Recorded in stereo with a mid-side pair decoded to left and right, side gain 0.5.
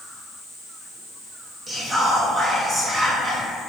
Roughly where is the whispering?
Ahead.